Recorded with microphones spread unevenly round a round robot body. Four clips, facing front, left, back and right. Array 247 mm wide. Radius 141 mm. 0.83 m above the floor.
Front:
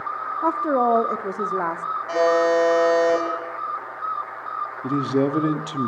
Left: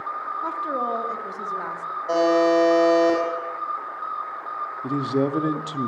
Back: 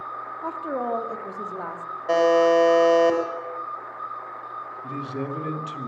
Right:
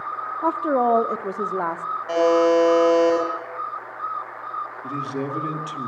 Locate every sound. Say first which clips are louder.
0.4 s a woman speaking: right 8 dB, front 9 dB; 45° right, 1.6 m
2.1 s a buzzer: right 1 dB, back 1 dB; 165° left, 7.5 m
4.8 s a man speaking: left 7 dB, front 11 dB; 30° left, 2.5 m